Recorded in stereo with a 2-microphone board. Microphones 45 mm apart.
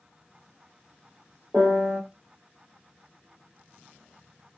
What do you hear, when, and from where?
1.5 s a piano: 35° right (ahead or behind), 1.4 m